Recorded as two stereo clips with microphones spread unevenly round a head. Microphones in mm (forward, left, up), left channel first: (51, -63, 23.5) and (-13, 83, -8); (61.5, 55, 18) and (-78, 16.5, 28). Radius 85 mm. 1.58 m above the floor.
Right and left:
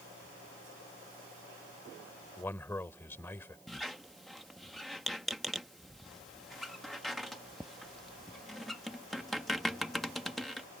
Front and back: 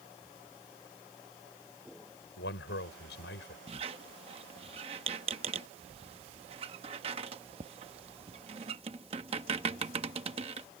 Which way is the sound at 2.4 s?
10° left.